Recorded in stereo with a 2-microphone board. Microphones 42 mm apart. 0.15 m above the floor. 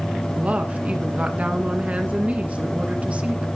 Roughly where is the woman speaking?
Right.